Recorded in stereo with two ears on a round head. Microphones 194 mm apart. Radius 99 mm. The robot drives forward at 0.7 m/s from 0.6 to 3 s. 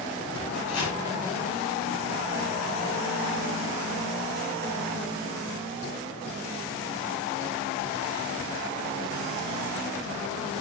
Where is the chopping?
80° left, 5 m; by 1.0 s 75° left (ahead or behind), 5 m.